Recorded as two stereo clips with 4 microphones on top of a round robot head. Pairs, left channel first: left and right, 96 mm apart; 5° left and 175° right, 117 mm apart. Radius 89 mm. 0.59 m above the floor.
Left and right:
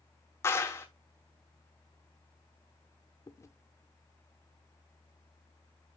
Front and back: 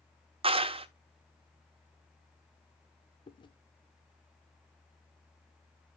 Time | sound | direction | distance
0.4 | a clap | 155° left | 1.0 m
3.3 | chewing | 40° left | 0.9 m